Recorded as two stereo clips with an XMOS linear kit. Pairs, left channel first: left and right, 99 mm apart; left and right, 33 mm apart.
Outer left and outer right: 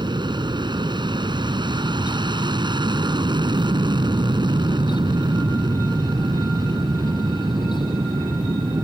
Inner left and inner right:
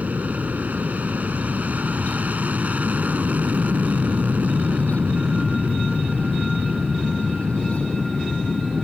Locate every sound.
0.0 s an aircraft: 50° right (ahead or behind)